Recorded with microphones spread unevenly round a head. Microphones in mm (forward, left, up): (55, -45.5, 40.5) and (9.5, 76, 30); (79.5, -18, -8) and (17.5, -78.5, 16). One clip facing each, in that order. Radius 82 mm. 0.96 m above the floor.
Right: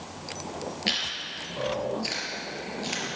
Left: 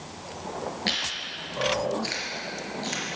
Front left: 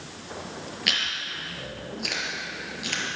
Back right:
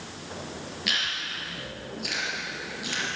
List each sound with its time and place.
0.9 s chewing: 10° left, 4 m